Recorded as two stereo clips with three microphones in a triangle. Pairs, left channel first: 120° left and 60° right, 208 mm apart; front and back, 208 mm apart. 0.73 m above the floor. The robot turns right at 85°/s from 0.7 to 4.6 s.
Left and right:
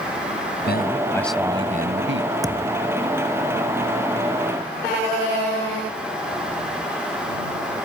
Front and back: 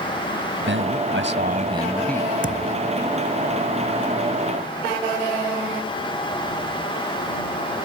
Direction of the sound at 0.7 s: 155° left.